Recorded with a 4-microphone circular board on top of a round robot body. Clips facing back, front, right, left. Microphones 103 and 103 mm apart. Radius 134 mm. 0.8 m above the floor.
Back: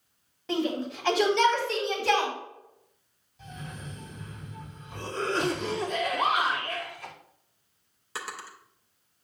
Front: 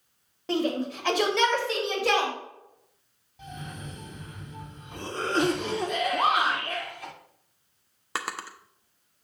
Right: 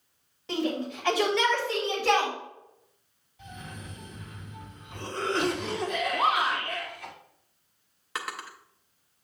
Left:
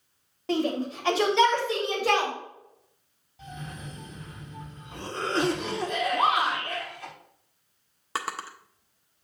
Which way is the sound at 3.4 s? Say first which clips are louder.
Front 2 dB, left 3 dB; 30° left.